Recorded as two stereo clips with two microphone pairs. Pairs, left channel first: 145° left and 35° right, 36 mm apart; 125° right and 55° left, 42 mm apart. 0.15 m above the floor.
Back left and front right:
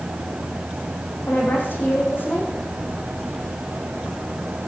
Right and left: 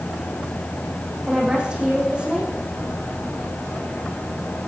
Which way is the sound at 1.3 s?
125° left.